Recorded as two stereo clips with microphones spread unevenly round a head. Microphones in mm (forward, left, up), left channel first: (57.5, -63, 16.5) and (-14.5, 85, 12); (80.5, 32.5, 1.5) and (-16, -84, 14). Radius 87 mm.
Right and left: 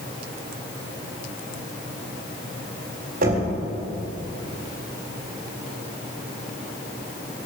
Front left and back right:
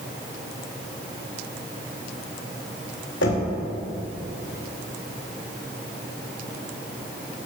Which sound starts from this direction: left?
Knocking, at 3.2 s.